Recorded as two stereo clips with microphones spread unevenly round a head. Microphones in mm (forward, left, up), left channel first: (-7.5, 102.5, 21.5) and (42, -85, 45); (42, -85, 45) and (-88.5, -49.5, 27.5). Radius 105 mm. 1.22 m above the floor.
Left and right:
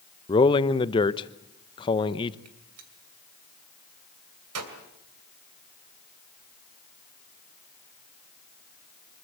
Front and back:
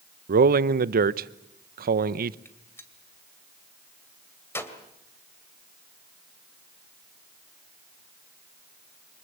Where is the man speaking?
175° left, 0.7 m.